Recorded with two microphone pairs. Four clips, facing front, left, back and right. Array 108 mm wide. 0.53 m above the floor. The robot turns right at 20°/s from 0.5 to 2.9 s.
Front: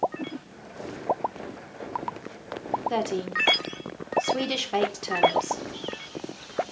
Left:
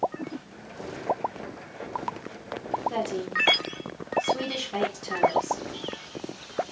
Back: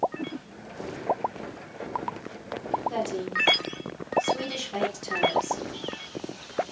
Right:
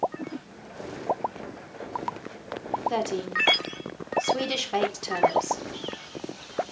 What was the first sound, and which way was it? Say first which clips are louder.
A woman speaking: right 1 dB, front 2 dB; 45° right.